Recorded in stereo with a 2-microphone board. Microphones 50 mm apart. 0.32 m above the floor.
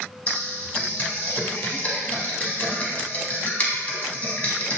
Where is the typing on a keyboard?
30° left (ahead or behind), 0.7 m.